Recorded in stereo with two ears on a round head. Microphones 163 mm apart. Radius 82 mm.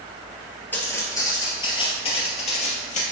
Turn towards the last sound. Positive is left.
turn(degrees=45)  # may be behind; listen again after turning